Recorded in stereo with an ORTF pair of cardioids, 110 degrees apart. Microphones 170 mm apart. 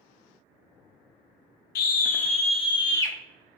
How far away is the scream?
About 1.0 m.